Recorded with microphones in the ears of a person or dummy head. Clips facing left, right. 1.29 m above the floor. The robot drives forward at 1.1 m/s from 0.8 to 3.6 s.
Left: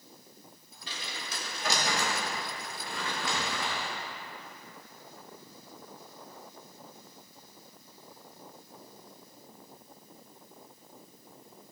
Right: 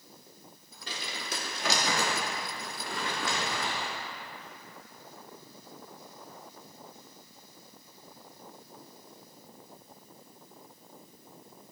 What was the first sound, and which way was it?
Crumpling, 45° right (ahead or behind).